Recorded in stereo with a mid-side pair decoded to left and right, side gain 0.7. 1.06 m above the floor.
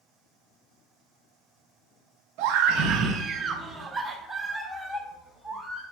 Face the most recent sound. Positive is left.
turn(degrees=10)